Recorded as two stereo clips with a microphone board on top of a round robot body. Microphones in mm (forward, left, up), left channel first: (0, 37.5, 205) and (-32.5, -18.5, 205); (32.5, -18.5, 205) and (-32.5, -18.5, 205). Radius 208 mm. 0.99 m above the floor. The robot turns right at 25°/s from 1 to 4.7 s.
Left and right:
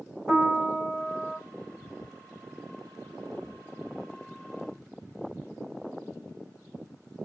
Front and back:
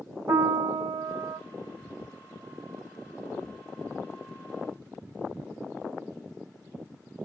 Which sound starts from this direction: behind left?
A piano, at 0.3 s.